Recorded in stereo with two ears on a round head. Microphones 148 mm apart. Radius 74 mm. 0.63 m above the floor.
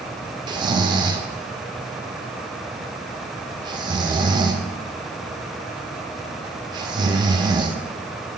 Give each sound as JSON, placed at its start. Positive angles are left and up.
{"t": 0.5, "sound": "snoring", "side_deg": -25, "distance_m": 0.6}